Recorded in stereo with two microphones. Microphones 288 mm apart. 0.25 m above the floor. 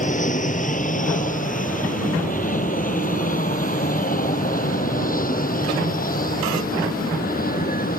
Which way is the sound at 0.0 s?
25° left (ahead or behind).